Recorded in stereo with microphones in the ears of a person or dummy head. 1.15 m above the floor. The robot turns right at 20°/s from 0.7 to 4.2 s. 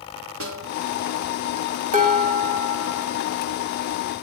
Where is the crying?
No crying in this recording.